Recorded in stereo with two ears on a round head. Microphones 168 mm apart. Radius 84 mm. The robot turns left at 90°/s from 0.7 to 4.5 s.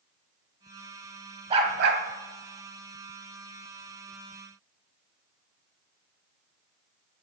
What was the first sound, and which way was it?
A dog barking, 25° right.